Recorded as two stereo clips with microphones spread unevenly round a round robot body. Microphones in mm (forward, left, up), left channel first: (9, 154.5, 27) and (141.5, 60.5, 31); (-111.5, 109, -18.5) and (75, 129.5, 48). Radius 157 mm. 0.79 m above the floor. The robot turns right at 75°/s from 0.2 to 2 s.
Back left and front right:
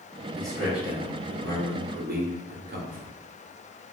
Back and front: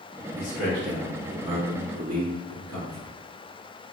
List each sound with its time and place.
0.4 s a man speaking: 145° right, 0.9 m; by 3.1 s 25° right, 0.9 m